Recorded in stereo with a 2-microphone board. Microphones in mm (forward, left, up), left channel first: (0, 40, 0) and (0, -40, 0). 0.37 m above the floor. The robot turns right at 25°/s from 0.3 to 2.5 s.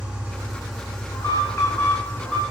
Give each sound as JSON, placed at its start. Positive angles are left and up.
{"t": 0.0, "sound": "an engine running", "azimuth_deg": -15, "distance_m": 3.5}
{"t": 1.1, "sound": "an alarm", "azimuth_deg": 140, "distance_m": 2.5}